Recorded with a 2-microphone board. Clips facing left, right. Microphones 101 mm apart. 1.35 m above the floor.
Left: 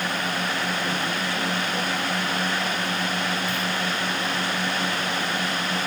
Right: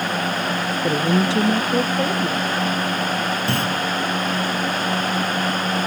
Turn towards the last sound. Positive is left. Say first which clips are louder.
# right 5 dB
turn(degrees=-80)